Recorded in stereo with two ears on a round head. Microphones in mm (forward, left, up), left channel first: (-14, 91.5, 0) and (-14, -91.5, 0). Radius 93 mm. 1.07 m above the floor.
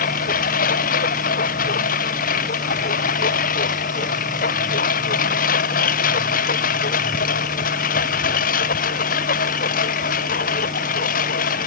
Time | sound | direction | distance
0.0 | a lawn mower | 45° left (ahead or behind) | ?